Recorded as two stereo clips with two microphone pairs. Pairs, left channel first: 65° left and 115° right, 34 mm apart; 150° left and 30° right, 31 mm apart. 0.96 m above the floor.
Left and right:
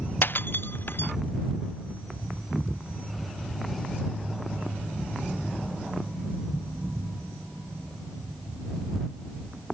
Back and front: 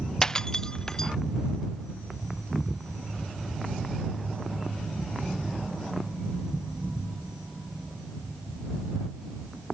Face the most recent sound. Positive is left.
turn(degrees=75)